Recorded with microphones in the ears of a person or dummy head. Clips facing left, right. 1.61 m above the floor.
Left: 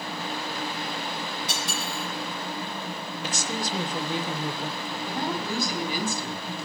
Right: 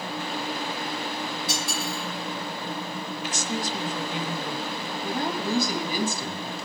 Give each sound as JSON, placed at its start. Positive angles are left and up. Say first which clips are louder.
{"t": 1.5, "sound": "cutlery clinking", "louder": "right 2 dB", "side_deg": 25, "distance_m": 4.5}
{"t": 3.2, "sound": "a woman speaking", "louder": "even", "side_deg": 35, "distance_m": 0.8}
{"t": 5.0, "sound": "a woman speaking", "louder": "right 2 dB", "side_deg": -75, "distance_m": 2.5}